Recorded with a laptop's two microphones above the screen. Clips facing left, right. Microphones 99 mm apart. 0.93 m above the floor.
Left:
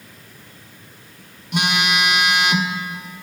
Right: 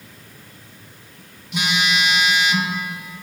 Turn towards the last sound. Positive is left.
turn(degrees=65)  # may be behind; listen again after turning